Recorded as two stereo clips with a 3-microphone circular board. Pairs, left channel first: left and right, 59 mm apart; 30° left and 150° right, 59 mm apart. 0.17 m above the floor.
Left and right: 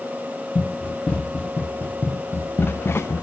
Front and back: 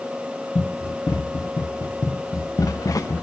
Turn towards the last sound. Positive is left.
turn(degrees=50)